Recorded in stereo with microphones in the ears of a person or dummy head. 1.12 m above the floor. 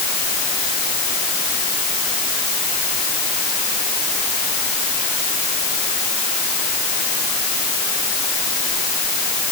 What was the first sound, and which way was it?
Only background noise.